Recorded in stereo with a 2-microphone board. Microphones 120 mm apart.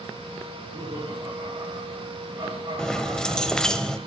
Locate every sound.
0.5 s laughter: 30° right (ahead or behind), 4.5 m
2.8 s keys jangling: 5° left (ahead or behind), 0.6 m